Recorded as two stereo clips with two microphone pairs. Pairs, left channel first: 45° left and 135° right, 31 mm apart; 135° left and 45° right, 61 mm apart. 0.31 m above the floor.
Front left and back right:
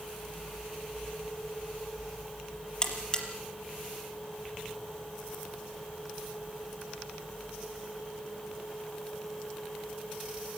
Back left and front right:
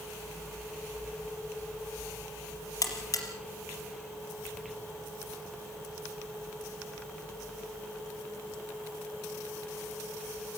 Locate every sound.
2.8 s a buzzer: 110° left, 4 m